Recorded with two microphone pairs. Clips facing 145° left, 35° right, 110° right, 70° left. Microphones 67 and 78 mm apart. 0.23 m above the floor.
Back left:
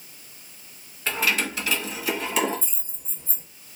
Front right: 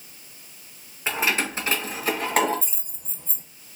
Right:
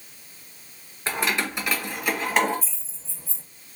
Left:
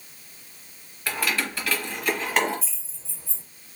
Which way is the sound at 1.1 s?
85° right.